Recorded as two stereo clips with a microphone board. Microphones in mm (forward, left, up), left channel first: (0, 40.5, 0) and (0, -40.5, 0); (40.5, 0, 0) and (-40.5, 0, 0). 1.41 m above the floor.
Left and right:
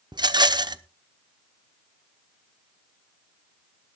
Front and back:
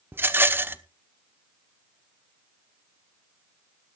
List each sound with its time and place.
0.1 s a rattle: 120° right, 0.8 m